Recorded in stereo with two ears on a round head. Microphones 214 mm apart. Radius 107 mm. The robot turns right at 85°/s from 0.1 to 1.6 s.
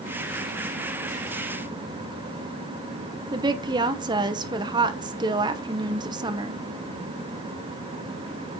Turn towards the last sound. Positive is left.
turn(degrees=-20)  # may be behind; listen again after turning